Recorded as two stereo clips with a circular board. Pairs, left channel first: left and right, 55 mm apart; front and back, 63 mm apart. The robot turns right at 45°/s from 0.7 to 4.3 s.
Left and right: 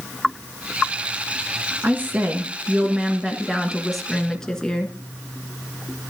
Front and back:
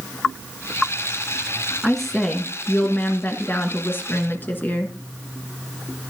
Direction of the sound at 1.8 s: 90° right.